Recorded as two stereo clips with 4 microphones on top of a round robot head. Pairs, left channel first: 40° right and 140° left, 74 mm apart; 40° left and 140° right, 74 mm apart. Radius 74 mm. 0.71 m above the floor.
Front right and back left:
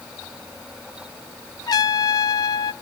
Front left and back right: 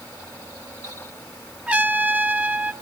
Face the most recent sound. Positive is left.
turn(degrees=-70)